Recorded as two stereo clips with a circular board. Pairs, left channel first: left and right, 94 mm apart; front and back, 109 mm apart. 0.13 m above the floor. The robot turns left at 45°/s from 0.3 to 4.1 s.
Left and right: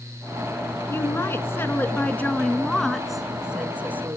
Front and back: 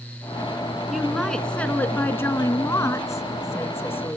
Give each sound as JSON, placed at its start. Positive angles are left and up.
{"t": 0.9, "sound": "a woman speaking", "azimuth_deg": 95, "distance_m": 1.1}